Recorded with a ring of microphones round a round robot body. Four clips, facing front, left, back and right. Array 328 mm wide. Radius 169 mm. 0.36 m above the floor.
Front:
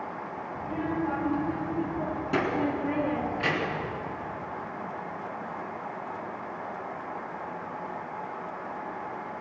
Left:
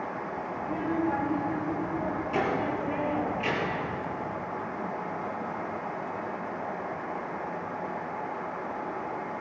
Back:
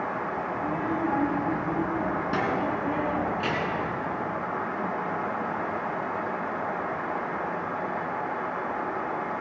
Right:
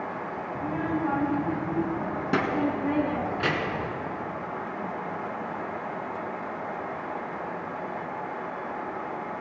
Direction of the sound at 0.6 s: 115° right.